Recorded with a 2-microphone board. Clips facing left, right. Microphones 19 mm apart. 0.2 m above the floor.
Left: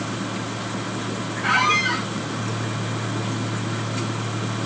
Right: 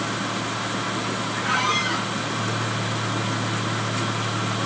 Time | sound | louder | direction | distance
1.4 | a squeak | left 4 dB | 25° left (ahead or behind) | 2.5 m